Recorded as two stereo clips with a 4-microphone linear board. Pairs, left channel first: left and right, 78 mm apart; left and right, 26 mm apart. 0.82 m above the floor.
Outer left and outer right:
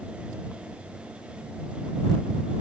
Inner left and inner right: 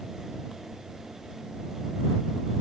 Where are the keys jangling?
No keys jangling in this recording.